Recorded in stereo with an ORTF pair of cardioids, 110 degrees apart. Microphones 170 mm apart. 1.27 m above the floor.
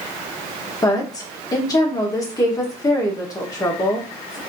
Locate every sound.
0.8 s a woman speaking: 20° left, 1.1 m